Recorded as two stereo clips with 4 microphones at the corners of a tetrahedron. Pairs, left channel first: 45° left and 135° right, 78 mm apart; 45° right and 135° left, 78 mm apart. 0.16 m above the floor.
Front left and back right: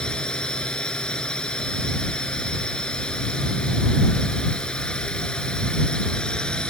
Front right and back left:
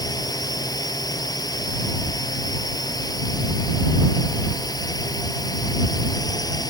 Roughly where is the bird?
No bird in this recording.